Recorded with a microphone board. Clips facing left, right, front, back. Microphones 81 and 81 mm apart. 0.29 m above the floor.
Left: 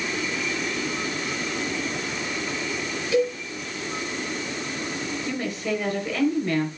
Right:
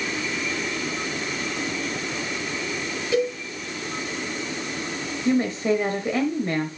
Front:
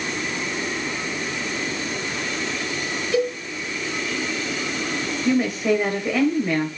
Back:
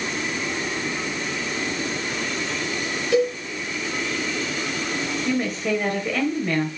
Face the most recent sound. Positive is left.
turn(degrees=-70)